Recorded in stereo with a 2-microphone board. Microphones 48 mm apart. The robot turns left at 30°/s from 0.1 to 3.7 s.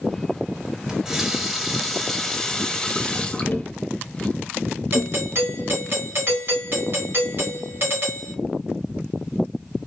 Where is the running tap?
10° right (ahead or behind), 0.9 m; by 4.3 s 25° left (ahead or behind), 0.9 m.